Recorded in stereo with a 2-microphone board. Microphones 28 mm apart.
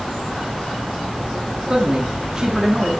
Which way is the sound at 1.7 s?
20° right (ahead or behind).